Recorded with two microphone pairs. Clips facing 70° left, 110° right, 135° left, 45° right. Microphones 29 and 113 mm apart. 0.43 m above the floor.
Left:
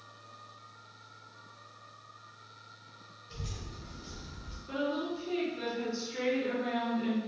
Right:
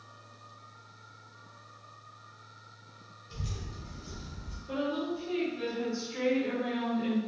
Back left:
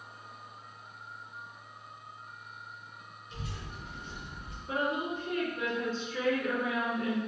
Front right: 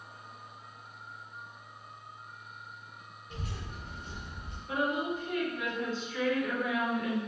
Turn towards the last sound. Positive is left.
turn(degrees=110)